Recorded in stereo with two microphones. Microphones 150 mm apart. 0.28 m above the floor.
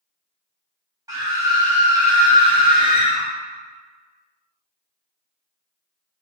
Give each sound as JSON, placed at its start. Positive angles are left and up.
{"t": 1.1, "sound": "a scream", "side_deg": -25, "distance_m": 1.2}